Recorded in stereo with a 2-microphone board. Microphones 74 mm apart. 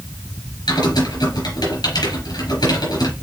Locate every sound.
0.7 s typing on a keyboard: 80° left, 3.5 m